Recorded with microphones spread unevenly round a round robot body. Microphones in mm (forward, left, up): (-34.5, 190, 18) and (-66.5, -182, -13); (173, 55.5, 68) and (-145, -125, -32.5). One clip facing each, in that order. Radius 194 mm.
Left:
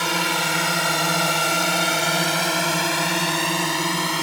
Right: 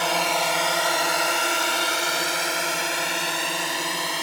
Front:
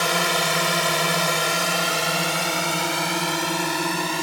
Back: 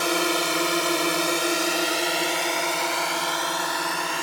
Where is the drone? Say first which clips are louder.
Even, back 1 dB; 15° left; by 4.2 s 95° left.